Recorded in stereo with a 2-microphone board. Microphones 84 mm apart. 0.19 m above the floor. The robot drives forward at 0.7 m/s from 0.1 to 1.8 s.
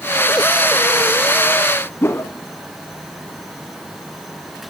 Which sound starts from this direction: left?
A whoosh, at 2.0 s.